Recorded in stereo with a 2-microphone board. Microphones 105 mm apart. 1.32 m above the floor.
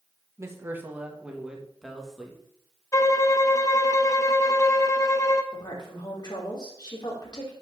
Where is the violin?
30° left (ahead or behind), 0.8 m.